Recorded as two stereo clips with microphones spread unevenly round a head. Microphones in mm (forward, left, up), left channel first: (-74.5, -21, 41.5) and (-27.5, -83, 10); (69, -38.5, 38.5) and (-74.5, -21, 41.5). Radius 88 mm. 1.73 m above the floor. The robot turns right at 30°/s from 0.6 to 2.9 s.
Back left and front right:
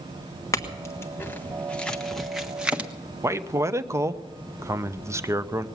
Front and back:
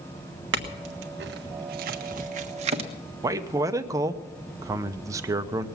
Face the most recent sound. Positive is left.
turn(degrees=-120)